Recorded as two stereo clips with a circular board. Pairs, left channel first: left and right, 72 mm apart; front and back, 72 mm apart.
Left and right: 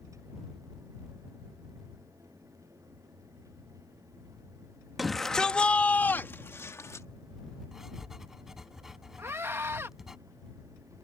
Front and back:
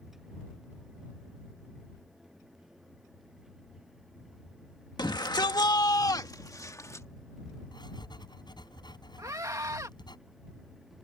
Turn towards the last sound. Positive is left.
turn(degrees=-145)